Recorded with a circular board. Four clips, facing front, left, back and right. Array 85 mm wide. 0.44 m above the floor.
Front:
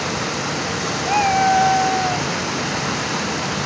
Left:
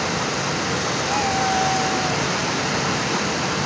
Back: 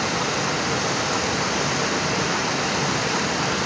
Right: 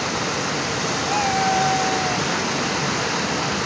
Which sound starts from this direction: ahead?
A cat meowing, at 1.1 s.